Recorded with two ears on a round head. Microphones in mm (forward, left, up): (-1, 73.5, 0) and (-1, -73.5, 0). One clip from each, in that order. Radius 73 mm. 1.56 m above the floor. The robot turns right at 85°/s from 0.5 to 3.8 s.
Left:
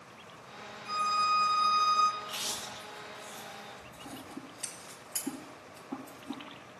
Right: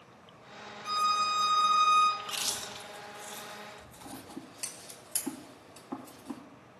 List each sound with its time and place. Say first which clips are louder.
0.8 s a violin: even; 115° right, 1.0 m; by 2.1 s 10° right, 1.0 m
2.2 s chewing: right 2 dB; 15° right (ahead or behind), 1.1 m; by 4.4 s 20° right (ahead or behind), 1.1 m
4.0 s scissors: right 1 dB; 30° right (ahead or behind), 1.7 m